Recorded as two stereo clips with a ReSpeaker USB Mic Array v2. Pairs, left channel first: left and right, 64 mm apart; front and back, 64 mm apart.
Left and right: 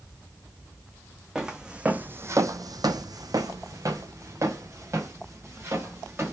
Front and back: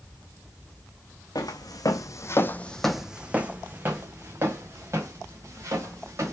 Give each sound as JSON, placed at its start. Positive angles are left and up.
{"t": 1.4, "sound": "footsteps", "azimuth_deg": -5, "distance_m": 0.9}